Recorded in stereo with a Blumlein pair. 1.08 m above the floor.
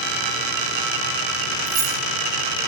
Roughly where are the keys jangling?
Ahead right.